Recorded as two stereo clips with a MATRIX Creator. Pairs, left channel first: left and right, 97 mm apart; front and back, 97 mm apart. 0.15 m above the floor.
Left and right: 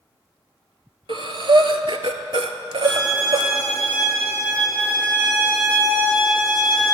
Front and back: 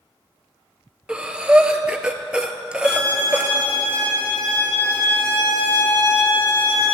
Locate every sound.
1.1 s breathing: 100° right, 0.5 m
2.8 s a violin: 25° right, 2.5 m